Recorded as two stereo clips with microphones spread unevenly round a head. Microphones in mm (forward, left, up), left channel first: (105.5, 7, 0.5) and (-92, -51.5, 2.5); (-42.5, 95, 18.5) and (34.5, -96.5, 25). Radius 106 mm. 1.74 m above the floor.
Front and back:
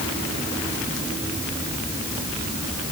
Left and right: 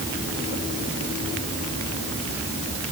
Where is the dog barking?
No dog barking in this recording.